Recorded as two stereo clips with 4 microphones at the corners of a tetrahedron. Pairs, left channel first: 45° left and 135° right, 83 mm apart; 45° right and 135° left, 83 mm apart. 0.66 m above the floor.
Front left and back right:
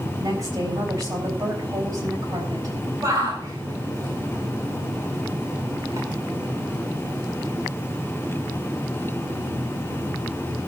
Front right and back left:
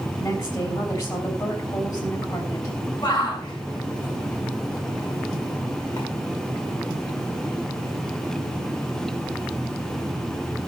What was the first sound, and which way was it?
A woman speaking, 85° right.